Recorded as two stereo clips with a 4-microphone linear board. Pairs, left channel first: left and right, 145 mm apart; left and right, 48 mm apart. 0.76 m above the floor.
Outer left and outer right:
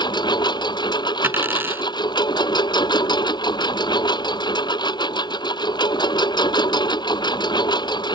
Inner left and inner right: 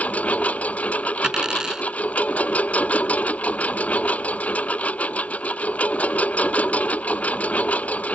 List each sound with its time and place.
0.0 s a lawn mower: 30° left (ahead or behind)
1.2 s a dropped coin: 15° right (ahead or behind)